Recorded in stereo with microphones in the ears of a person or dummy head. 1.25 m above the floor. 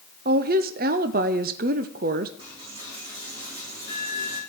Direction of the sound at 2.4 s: 25° right (ahead or behind).